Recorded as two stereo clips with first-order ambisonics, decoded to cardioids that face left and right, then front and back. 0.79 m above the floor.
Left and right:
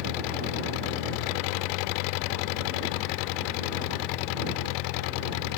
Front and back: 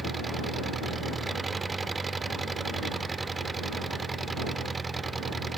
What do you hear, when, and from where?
0.0 s an engine running: 105° left